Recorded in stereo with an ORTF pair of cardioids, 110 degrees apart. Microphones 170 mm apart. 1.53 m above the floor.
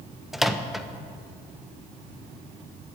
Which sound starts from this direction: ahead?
A microwave, at 0.3 s.